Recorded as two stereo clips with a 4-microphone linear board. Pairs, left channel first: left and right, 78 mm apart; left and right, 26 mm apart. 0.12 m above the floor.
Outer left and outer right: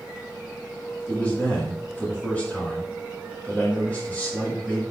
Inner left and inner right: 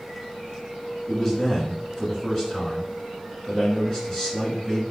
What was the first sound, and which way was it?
A man speaking, 20° left (ahead or behind).